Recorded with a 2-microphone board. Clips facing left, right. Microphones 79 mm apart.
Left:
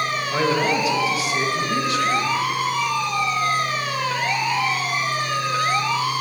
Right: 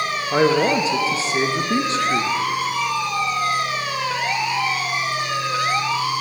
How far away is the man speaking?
About 0.9 m.